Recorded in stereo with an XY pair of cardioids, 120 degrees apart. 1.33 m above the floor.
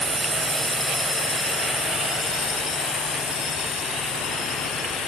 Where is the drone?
5° right; by 5.1 s 70° left.